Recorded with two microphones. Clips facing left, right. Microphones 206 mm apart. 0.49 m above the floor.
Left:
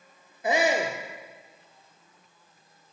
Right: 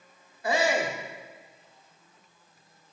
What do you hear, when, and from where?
0.4 s a shout: 20° left (ahead or behind), 0.8 m